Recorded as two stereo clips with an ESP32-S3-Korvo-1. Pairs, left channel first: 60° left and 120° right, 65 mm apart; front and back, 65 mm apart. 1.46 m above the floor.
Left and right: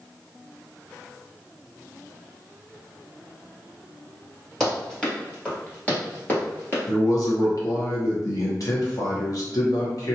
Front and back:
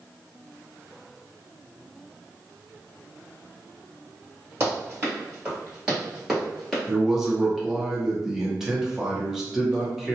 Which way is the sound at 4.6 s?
140° left.